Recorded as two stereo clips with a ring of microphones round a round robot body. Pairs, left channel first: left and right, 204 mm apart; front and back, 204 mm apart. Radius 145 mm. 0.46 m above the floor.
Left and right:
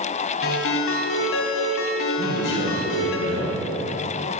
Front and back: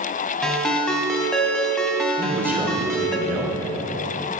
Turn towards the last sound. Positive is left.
turn(degrees=100)